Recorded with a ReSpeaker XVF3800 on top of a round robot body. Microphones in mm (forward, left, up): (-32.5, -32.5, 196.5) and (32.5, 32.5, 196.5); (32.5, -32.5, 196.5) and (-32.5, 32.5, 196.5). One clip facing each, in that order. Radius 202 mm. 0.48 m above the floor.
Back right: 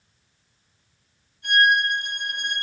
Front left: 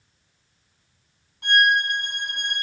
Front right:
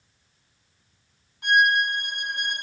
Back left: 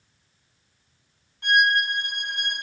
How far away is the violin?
About 4 m.